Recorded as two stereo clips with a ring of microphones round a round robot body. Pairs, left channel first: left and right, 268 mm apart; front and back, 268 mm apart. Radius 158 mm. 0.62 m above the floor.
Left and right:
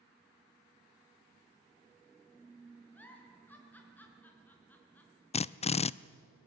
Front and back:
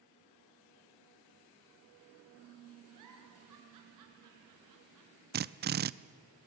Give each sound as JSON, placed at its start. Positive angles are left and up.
{"t": 2.9, "sound": "a giggle", "azimuth_deg": 175, "distance_m": 4.0}
{"t": 5.3, "sound": "a drill", "azimuth_deg": 150, "distance_m": 0.5}